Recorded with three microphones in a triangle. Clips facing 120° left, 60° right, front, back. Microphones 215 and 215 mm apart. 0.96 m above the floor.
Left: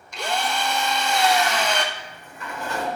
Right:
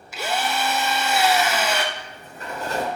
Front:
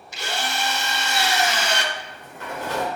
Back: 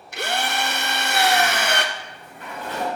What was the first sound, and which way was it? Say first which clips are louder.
A drill: right 1 dB, back 3 dB; 145° right.